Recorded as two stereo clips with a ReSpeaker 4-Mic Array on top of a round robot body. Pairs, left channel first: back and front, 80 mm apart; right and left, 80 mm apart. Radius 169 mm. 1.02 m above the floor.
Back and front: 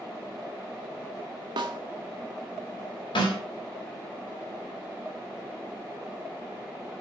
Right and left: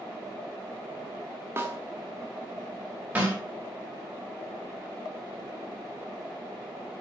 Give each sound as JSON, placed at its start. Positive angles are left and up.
{"t": 1.6, "sound": "a snare drum", "azimuth_deg": 30, "distance_m": 0.7}
{"t": 3.1, "sound": "a snare drum", "azimuth_deg": 160, "distance_m": 5.0}